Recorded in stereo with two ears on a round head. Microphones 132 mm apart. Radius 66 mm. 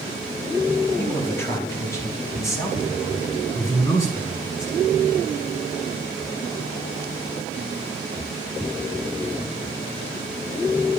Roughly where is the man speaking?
Centre.